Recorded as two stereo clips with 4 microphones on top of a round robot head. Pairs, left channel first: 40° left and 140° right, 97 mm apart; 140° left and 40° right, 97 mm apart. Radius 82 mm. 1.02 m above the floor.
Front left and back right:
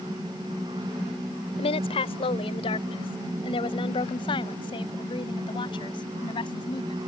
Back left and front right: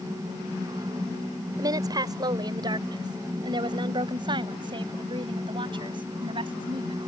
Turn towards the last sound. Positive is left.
turn(degrees=-5)